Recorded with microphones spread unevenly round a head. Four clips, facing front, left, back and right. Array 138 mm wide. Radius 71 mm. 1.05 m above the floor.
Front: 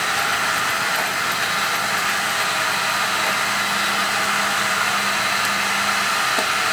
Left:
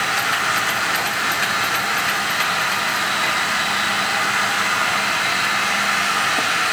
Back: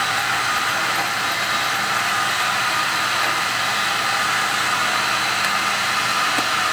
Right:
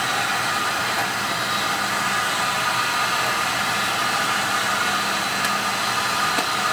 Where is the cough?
No cough in this recording.